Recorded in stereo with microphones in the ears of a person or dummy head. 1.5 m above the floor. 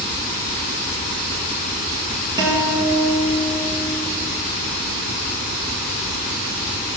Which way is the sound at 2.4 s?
15° right (ahead or behind).